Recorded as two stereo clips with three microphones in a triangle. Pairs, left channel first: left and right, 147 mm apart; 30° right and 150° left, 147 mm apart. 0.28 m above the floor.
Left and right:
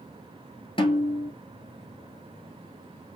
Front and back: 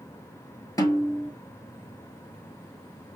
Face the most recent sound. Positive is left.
turn(degrees=35)